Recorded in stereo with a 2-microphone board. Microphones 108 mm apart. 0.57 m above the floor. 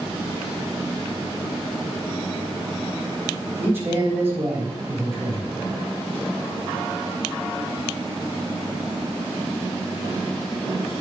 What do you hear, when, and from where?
3.6 s a man speaking: 20° right (ahead or behind), 3.5 m